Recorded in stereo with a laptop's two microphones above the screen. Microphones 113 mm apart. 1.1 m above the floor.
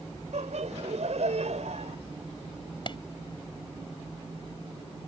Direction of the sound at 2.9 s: 45° left (ahead or behind).